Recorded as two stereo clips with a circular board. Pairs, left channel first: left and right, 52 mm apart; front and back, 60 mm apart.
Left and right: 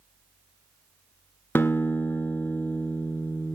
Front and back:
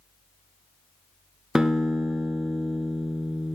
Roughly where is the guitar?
Left.